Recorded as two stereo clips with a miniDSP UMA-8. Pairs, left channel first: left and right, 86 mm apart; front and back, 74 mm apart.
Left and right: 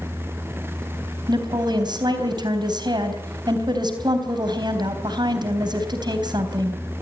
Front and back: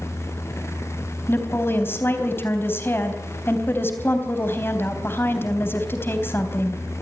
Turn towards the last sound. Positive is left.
turn(degrees=-60)